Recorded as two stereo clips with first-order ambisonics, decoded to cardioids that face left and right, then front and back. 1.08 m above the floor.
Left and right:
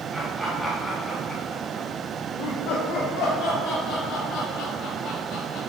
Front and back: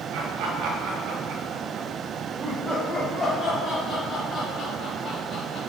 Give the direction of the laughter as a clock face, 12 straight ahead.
6 o'clock.